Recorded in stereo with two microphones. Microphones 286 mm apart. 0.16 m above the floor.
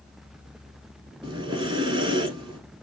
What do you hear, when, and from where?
1.2 s breathing: 15° right (ahead or behind), 0.7 m